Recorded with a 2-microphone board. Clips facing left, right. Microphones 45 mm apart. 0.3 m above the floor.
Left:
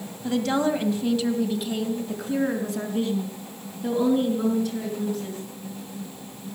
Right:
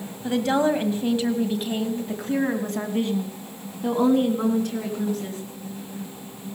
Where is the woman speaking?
15° right (ahead or behind), 2 m; by 5.4 s 60° right (ahead or behind), 4 m.